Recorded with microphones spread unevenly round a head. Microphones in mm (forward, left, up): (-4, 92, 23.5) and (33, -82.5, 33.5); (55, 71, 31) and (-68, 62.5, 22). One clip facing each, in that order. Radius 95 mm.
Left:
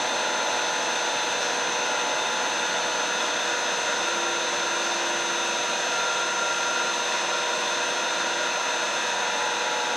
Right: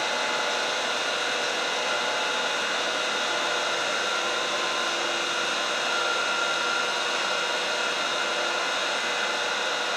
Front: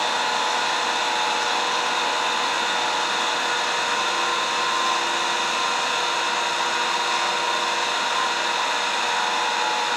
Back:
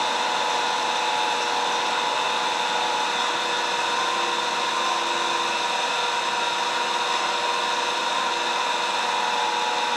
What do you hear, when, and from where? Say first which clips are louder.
0.0 s an engine running: left 1 dB, even; 100° left, 8.5 m